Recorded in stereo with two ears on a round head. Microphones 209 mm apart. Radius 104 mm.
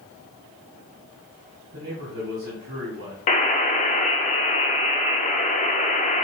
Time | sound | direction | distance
1.7 | a man speaking | 65° right (ahead or behind) | 2.5 m
3.3 | a buzzer | 30° left (ahead or behind) | 0.5 m